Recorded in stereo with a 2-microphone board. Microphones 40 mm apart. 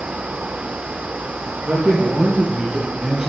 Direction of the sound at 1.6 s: 50° right (ahead or behind).